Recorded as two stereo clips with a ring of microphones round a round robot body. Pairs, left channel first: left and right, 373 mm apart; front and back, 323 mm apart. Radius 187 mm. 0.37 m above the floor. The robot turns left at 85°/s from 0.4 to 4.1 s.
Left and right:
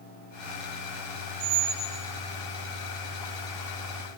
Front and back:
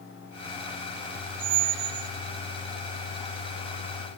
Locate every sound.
1.4 s a squeak: 140° right, 0.6 m; by 2.1 s 165° left, 0.6 m